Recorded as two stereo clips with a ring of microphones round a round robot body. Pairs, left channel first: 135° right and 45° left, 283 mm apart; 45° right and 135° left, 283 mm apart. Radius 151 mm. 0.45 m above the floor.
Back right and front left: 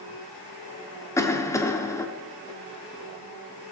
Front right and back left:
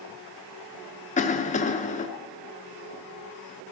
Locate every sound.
1.2 s a cough: 70° right, 0.8 m